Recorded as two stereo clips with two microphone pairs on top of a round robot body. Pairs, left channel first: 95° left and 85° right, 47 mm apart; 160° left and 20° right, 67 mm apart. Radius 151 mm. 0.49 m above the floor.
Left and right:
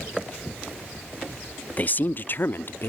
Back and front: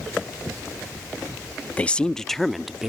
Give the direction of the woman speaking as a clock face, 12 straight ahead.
8 o'clock.